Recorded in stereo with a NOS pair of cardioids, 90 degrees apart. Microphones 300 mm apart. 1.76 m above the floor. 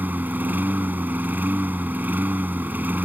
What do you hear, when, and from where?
0.0 s a lawn mower: 5° right